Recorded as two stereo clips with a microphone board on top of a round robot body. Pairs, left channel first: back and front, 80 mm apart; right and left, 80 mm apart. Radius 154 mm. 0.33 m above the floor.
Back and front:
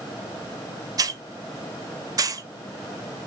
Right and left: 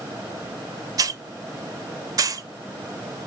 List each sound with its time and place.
1.0 s a hiss: 45° left, 0.5 m